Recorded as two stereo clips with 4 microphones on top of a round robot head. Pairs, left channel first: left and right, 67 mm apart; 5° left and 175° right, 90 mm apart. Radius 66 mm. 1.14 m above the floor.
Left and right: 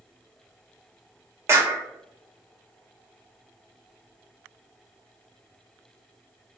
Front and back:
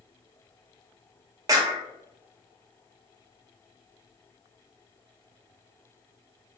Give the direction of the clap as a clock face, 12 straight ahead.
4 o'clock.